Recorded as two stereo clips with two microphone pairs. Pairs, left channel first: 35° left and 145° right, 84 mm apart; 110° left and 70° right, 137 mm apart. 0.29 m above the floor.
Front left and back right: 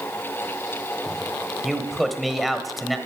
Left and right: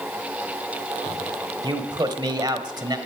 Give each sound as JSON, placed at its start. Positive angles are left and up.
{"t": 1.6, "sound": "a man speaking", "azimuth_deg": -60, "distance_m": 1.1}